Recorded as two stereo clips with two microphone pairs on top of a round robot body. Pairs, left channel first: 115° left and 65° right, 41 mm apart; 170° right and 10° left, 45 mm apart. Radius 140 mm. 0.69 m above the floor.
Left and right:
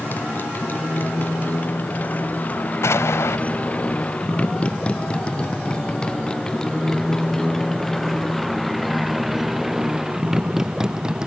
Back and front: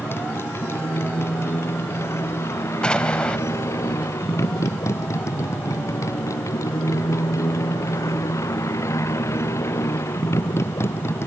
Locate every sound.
0.0 s a motorcycle: 155° left; by 11.3 s 140° right
2.8 s an explosion: 125° left